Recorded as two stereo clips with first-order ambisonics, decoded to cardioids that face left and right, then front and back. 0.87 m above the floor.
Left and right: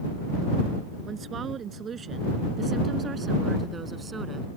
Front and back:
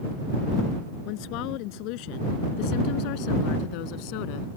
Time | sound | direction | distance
1.1 | a woman speaking | 25° right | ?